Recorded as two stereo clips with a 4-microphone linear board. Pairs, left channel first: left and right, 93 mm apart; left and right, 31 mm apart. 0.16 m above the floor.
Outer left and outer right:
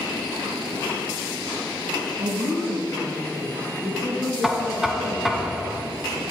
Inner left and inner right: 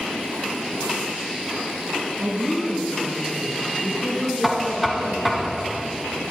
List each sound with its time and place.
2.2 s a woman speaking: 70° right (ahead or behind), 6 m
4.4 s knocking: 5° right (ahead or behind), 1.5 m